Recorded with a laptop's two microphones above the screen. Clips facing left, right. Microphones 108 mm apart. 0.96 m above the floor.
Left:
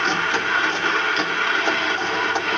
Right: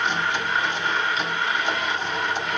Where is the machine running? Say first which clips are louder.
Left 2 dB; 75° left (ahead or behind), 1.9 m.